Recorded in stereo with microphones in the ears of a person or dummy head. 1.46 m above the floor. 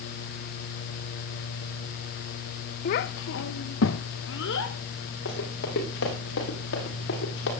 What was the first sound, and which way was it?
A child speaking, 40° left (ahead or behind).